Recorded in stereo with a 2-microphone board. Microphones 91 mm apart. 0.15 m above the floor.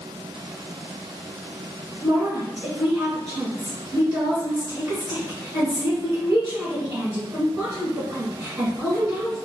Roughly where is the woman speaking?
Right.